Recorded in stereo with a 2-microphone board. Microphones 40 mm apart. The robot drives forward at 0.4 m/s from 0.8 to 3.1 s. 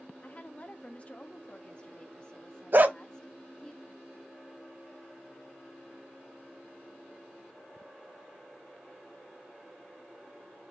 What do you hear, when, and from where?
0.2 s a woman speaking: 35° left (ahead or behind), 0.5 m; by 3.7 s 15° left (ahead or behind), 1.2 m
2.7 s a dog barking: 50° right (ahead or behind), 0.6 m; by 3.0 s 45° right (ahead or behind), 0.6 m